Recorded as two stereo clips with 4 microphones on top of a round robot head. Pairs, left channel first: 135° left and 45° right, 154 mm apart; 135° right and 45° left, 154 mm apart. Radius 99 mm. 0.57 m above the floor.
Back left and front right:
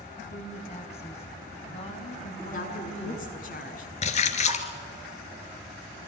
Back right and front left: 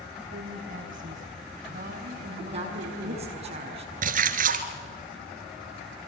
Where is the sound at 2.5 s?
95° left, 7 m.